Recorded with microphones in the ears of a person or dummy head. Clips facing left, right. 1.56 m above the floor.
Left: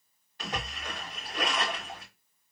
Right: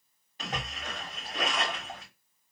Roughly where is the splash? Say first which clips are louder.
Even; right.